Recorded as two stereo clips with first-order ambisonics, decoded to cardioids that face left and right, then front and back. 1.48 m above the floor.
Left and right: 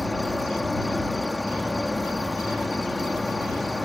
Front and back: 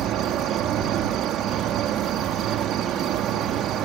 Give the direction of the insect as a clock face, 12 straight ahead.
6 o'clock.